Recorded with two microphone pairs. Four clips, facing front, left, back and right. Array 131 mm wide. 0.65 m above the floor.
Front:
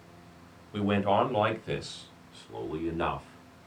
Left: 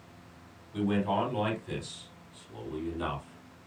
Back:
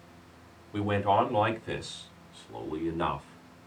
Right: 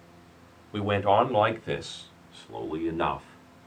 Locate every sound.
0.7 s a man speaking: 90° right, 2.5 m; by 3.7 s 95° right, 4 m